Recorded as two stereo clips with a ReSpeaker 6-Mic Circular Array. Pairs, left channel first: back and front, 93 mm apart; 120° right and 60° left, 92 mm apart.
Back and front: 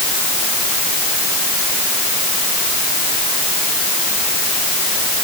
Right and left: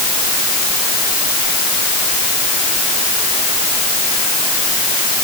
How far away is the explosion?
I don't hear an explosion.